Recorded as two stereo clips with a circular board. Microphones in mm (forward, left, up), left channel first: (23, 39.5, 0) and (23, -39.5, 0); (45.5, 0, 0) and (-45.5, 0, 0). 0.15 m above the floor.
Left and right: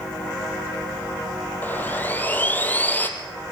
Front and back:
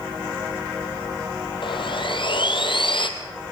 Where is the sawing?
20° left, 1.8 m.